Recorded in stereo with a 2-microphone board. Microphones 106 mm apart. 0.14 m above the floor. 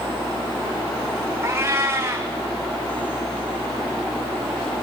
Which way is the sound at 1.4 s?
25° right (ahead or behind).